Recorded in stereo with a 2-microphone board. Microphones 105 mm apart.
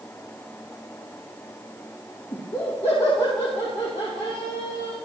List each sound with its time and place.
2.3 s laughter: 70° left (ahead or behind), 4 m; by 5.0 s 60° left (ahead or behind), 3 m